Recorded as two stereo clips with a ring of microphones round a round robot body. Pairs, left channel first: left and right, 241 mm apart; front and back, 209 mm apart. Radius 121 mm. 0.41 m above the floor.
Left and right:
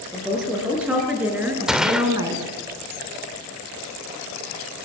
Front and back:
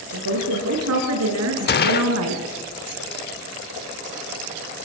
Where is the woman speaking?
Straight behind, 7 m; by 2.4 s 165° right, 4 m.